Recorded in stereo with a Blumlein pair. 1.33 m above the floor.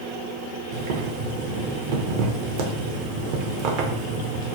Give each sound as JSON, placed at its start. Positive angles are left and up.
{"t": 0.7, "sound": "boiling", "azimuth_deg": -45, "distance_m": 0.5}